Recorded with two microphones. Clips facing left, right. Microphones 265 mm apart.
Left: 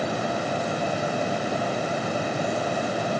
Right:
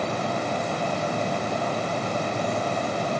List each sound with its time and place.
Only background noise.